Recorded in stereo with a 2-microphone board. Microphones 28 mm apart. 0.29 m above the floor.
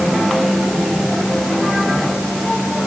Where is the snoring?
I don't hear snoring.